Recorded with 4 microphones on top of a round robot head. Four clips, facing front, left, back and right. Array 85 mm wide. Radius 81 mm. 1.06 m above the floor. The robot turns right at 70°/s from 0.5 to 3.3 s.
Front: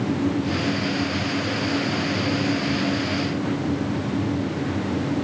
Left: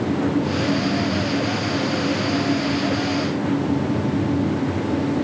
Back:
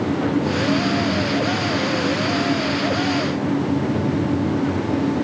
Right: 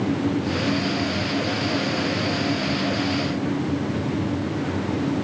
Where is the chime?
No chime in this recording.